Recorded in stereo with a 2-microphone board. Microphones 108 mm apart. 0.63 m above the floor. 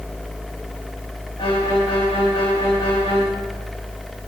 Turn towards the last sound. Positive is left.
turn(degrees=60)  # may be behind; listen again after turning